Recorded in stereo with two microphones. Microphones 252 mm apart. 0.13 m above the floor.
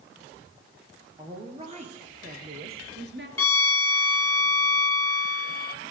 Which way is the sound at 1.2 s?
20° right (ahead or behind).